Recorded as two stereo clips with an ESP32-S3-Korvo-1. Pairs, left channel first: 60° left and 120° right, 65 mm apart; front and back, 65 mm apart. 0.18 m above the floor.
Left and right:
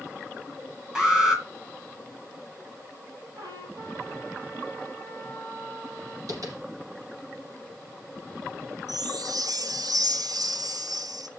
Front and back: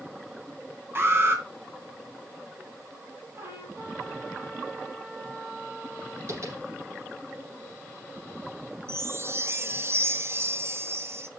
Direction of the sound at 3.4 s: 125° right.